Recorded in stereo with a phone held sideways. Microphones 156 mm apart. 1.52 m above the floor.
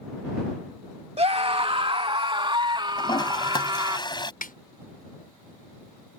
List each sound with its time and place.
1.2 s a scream: 40° right (ahead or behind); by 4.0 s 30° right (ahead or behind)
3.0 s a toilet flushing: 30° left (ahead or behind)
4.4 s a snare drum: 70° left (ahead or behind)